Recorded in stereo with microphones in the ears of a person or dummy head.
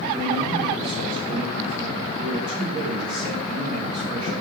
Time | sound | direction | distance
0.1 | a man speaking | 30° right (ahead or behind) | 2.5 m